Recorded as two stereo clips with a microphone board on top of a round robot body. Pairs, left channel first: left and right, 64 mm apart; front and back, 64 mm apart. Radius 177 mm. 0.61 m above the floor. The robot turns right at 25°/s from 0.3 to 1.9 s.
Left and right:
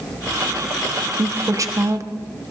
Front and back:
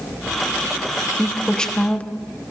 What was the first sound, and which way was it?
A woman speaking, 85° right.